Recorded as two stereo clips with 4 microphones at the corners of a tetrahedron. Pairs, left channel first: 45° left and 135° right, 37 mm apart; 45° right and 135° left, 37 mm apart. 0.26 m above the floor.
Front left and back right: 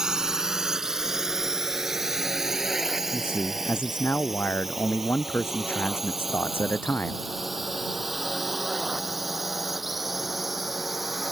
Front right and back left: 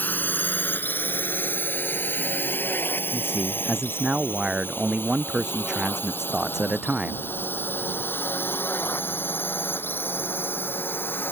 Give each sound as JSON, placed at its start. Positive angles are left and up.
{"t": 0.0, "sound": "a drone", "azimuth_deg": -60}
{"t": 3.1, "sound": "a man speaking", "azimuth_deg": 65}